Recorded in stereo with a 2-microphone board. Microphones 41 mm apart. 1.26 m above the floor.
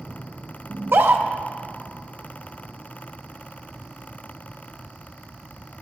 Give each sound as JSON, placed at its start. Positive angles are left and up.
{"t": 0.7, "sound": "a scream", "side_deg": -65, "distance_m": 0.8}